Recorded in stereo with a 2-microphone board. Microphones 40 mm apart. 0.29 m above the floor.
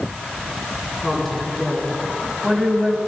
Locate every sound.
1.0 s a woman speaking: 5° left (ahead or behind), 4 m; by 3.0 s 15° right (ahead or behind), 1.8 m